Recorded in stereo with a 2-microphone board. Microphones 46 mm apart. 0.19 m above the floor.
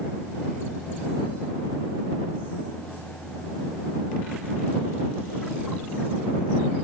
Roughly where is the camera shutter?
I don't hear a camera shutter.